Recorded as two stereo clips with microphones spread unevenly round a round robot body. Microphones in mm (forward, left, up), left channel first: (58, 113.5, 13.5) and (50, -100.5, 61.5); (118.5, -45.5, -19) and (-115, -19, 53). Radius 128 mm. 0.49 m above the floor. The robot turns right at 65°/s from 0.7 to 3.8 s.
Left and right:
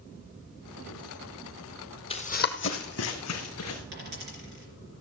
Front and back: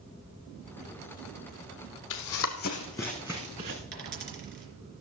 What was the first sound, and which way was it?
Running footsteps, 20° left.